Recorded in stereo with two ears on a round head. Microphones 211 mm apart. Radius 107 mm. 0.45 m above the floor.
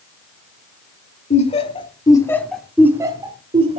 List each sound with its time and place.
1.3 s laughter: 30° left (ahead or behind), 1.8 m; by 3.8 s 25° right (ahead or behind), 1.8 m